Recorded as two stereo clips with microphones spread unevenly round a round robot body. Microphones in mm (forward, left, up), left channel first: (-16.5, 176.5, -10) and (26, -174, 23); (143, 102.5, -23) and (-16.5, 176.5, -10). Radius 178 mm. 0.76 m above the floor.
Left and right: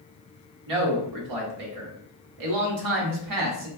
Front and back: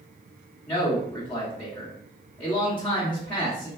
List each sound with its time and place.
0.7 s a man speaking: 105° right, 1.2 m